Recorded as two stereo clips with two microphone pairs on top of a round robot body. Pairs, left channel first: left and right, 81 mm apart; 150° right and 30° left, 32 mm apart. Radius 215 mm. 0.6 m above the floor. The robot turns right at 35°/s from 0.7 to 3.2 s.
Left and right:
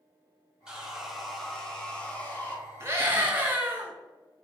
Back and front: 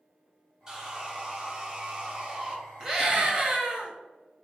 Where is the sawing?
30° right, 1.2 m; by 2.6 s 40° left, 1.2 m.